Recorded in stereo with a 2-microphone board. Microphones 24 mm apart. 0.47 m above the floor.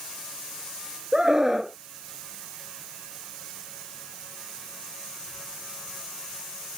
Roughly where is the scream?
Centre.